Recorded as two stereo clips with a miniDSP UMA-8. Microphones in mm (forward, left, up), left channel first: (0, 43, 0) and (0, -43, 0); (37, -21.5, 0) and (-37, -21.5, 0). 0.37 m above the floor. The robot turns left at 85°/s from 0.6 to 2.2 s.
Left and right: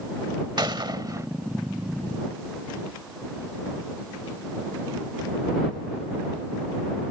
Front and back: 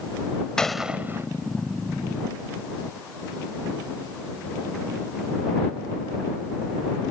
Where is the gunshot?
80° right; by 1.3 s 135° right.